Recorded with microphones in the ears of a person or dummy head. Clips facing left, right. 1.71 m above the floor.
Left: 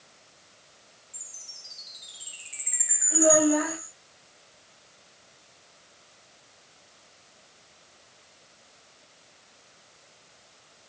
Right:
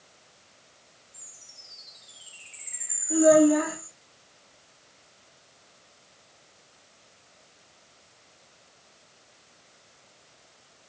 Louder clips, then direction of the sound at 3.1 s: Right 4 dB; 55° right (ahead or behind).